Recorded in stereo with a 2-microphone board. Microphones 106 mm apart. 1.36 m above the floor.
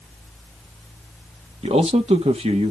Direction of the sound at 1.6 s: 70° right (ahead or behind).